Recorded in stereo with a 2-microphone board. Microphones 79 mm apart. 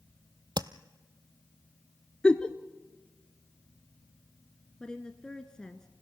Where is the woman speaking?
10° left (ahead or behind), 1.1 m.